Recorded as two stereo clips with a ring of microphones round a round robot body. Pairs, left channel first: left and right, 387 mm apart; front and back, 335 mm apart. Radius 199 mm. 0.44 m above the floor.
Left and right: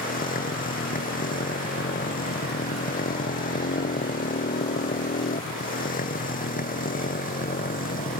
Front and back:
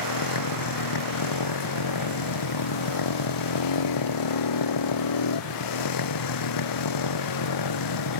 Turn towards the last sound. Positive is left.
turn(degrees=20)